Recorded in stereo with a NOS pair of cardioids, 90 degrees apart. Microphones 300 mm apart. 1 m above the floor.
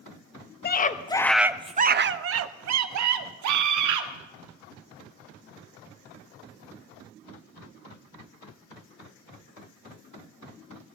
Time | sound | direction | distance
0.6 | a scream | 35° left | 0.9 m